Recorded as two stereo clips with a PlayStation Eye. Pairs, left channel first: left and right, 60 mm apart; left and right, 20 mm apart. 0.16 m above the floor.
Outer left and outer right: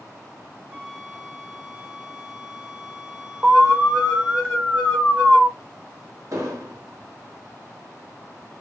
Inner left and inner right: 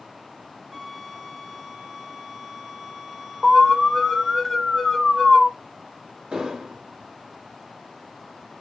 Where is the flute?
25° right (ahead or behind), 1.3 m.